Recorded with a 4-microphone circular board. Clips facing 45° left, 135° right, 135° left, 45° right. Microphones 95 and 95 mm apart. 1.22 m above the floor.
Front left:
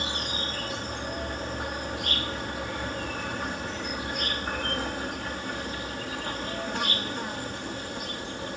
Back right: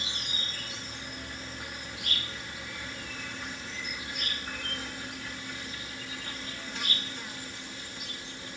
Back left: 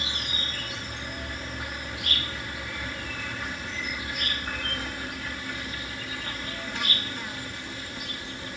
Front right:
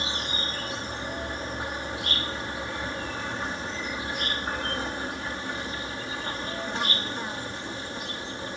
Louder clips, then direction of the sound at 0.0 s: Front left 8 dB, front right 3 dB; 15° left.